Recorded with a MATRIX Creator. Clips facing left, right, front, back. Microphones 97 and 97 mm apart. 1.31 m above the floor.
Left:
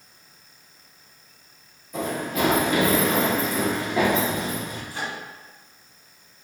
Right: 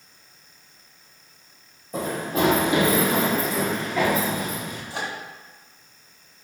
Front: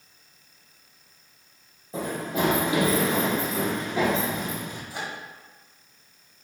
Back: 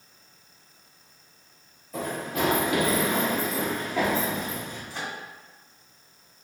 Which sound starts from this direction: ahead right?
Running footsteps, at 1.9 s.